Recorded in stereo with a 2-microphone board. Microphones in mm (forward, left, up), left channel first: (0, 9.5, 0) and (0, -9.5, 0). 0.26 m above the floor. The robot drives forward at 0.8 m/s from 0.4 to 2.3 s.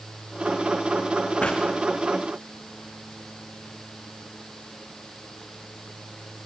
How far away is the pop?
About 6.5 m.